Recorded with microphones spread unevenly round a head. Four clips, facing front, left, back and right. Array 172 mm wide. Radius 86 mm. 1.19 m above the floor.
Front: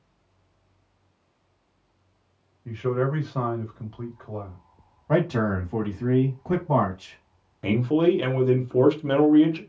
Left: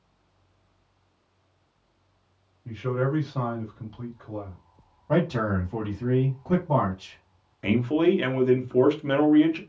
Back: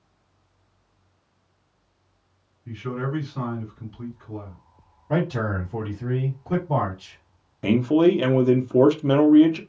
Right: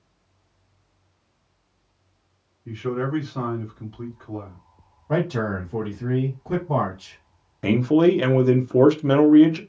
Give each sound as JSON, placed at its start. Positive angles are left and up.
{"t": 2.6, "sound": "a man speaking", "azimuth_deg": 15, "distance_m": 1.3}
{"t": 5.1, "sound": "a man speaking", "azimuth_deg": 20, "distance_m": 1.6}
{"t": 7.6, "sound": "a man speaking", "azimuth_deg": -115, "distance_m": 0.6}